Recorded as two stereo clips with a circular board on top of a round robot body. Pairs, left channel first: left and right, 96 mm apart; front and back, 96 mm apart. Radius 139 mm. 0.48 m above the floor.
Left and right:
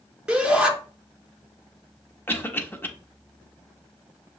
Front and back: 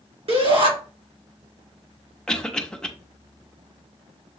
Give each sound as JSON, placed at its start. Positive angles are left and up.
{"t": 0.3, "sound": "a shout", "azimuth_deg": -170, "distance_m": 2.5}
{"t": 2.3, "sound": "a cough", "azimuth_deg": 65, "distance_m": 1.1}